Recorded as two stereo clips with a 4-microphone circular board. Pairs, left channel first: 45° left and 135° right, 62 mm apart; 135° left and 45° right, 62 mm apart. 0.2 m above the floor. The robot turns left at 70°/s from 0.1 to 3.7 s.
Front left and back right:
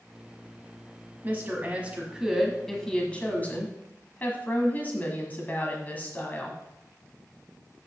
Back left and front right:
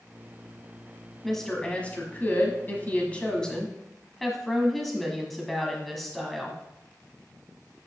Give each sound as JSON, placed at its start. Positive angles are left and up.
{"t": 1.2, "sound": "a woman speaking", "azimuth_deg": -135, "distance_m": 1.4}